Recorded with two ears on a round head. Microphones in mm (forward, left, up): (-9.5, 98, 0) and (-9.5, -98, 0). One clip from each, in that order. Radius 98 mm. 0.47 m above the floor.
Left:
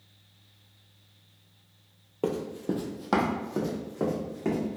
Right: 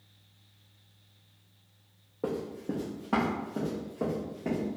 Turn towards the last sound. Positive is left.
turn(degrees=70)  # may be behind; listen again after turning